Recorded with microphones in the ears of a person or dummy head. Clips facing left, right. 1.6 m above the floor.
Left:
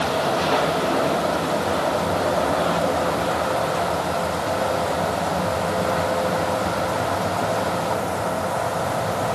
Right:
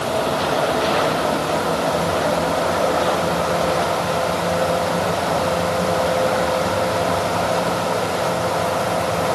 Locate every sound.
Only background noise.